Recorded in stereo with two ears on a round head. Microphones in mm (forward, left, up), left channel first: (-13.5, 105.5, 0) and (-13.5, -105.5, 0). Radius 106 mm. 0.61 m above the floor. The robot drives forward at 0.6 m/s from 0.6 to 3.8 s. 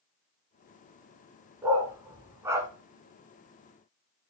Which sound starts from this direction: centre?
A dog barking, at 1.6 s.